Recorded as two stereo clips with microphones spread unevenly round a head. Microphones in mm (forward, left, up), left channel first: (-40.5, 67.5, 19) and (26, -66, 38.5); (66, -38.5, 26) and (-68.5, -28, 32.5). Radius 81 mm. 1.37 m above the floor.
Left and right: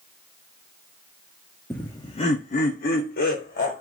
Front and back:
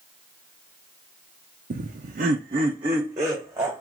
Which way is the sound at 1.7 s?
160° right.